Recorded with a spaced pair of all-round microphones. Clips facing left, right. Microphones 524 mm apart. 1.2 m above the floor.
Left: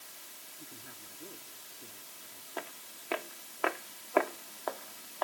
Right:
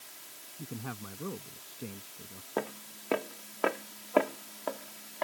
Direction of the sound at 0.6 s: 85° right.